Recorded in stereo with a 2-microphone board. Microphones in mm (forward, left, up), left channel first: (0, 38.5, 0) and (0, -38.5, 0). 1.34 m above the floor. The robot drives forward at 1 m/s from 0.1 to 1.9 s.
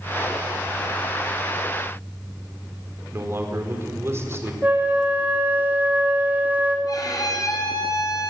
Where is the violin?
50° left (ahead or behind), 5.5 m.